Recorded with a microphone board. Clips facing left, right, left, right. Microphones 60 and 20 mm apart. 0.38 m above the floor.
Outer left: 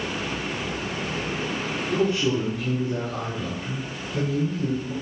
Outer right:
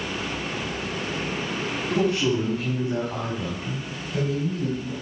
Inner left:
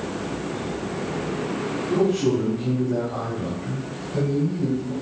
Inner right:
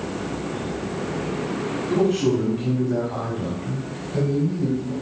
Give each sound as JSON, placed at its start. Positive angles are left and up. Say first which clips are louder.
{"t": 1.9, "sound": "a man speaking", "louder": "even, inner right 1 dB", "side_deg": -60, "distance_m": 2.5}